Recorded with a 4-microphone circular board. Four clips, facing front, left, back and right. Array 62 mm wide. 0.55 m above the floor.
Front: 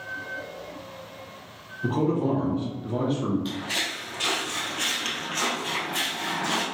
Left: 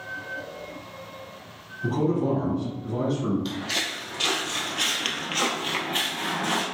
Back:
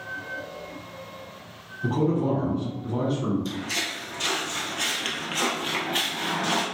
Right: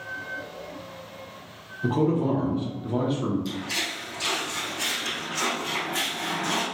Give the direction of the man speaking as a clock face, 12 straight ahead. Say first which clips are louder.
Right 1 dB, even; 2 o'clock.